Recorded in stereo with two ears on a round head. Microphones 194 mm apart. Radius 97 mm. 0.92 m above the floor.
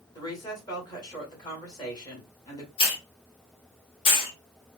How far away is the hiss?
About 1.5 m.